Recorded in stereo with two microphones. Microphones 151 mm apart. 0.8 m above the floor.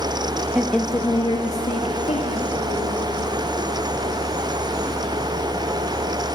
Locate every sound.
0.6 s a woman speaking: 5° right (ahead or behind), 0.8 m; by 3.0 s 65° left (ahead or behind), 3 m